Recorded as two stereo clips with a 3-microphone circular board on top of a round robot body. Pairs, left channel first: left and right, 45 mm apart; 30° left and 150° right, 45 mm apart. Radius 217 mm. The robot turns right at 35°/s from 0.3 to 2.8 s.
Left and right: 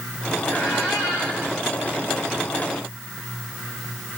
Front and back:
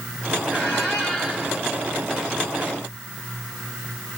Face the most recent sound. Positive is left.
turn(degrees=145)